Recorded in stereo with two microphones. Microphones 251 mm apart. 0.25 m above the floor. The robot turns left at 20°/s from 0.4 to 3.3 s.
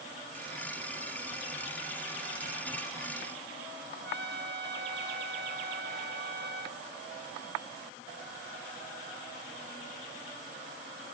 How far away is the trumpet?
About 1.3 m.